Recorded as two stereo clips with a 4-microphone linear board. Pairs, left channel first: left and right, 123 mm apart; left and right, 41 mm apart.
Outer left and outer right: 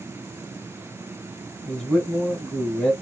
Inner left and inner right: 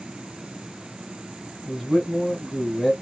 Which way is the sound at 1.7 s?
5° left (ahead or behind).